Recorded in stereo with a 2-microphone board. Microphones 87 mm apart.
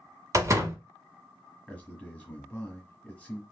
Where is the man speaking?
15° left (ahead or behind), 1.3 m.